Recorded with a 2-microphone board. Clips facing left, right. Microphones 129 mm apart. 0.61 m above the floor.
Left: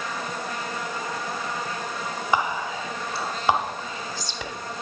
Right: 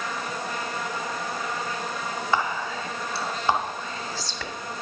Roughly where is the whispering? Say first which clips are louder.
Left 2 dB; centre.